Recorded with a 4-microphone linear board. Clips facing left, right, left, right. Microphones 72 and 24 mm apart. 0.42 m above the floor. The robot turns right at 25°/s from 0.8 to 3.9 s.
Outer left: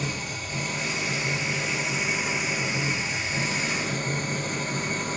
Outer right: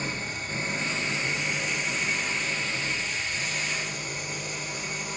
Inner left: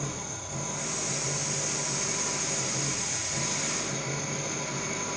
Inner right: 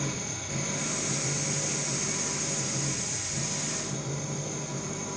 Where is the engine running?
30° right, 6 m; by 5.2 s 45° left, 6 m.